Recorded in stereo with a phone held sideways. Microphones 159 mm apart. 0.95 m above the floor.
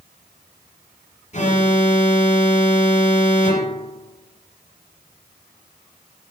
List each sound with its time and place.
1.3 s an alarm: 45° left (ahead or behind), 4 m